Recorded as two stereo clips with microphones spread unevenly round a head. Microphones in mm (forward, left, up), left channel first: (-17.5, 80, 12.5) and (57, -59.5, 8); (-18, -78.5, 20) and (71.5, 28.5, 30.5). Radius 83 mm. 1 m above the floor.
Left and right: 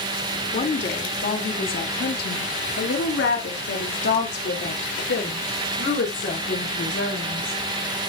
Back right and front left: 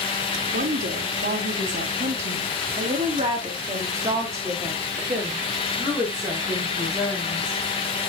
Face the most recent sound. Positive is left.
turn(degrees=145)